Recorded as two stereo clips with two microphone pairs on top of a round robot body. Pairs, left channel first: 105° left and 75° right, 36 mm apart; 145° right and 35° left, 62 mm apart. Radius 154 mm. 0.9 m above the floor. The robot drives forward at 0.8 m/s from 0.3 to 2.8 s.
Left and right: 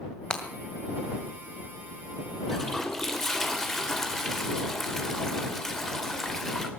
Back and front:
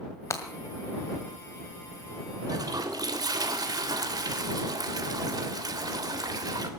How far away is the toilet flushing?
About 3 m.